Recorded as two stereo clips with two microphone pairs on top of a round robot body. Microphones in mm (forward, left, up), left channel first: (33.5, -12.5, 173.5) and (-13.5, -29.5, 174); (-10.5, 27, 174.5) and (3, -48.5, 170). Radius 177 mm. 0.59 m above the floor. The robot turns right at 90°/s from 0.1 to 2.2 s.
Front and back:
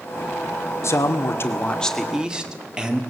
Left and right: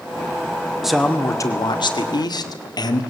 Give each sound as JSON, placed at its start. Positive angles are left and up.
{"t": 0.8, "sound": "a man speaking", "azimuth_deg": 5, "distance_m": 2.0}